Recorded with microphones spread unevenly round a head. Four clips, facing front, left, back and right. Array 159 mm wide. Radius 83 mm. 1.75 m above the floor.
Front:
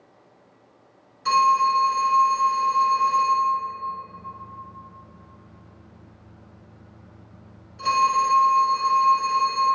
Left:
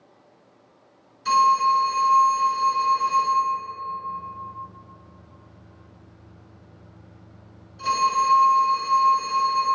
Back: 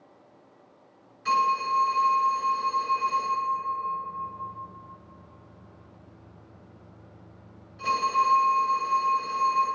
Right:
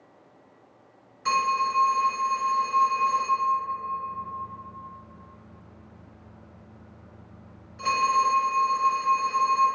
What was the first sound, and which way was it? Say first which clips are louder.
A phone ringing: left 6 dB, front 6 dB; 65° right.